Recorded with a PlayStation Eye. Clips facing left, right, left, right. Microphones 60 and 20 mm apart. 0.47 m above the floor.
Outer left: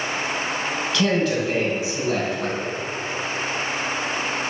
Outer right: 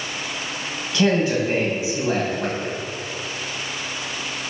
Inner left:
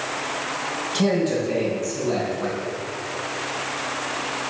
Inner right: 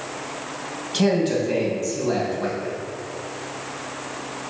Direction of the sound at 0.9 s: 25° right (ahead or behind).